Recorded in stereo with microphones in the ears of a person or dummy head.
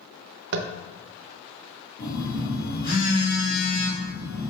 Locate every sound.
0.5 s tapping: 60° right (ahead or behind), 0.5 m
2.0 s a phone buzzing: 60° left (ahead or behind), 2.5 m